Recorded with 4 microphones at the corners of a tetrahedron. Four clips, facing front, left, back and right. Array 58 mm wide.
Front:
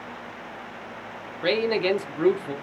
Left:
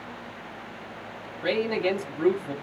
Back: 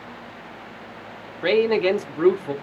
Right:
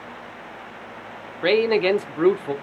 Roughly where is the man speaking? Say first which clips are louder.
Right 7 dB, back 4 dB; right.